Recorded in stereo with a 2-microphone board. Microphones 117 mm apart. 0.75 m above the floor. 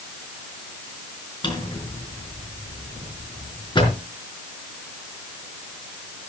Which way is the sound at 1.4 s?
45° left (ahead or behind).